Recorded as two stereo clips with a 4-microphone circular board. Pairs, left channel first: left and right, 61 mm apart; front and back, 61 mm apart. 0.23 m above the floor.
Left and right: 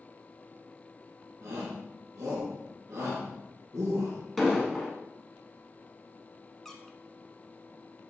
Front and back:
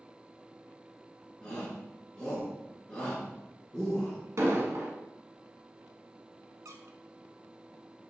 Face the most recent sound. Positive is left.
turn(degrees=175)